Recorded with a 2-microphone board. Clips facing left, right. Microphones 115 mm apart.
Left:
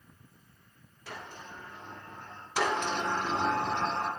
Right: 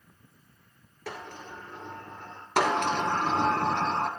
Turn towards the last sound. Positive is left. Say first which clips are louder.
# right 4 dB
turn(degrees=-65)  # may be behind; listen again after turning